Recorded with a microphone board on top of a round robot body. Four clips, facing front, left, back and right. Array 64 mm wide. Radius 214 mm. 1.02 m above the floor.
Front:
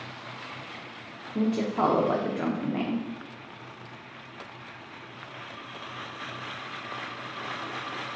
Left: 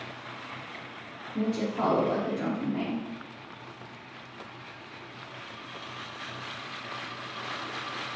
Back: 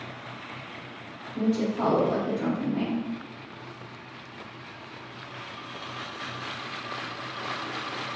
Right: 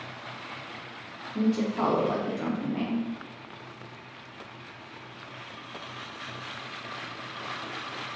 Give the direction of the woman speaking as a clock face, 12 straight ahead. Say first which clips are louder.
Right 3 dB, even; 12 o'clock.